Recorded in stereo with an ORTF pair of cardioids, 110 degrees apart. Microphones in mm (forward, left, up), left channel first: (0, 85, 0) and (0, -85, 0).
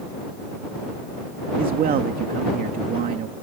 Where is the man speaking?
60° right.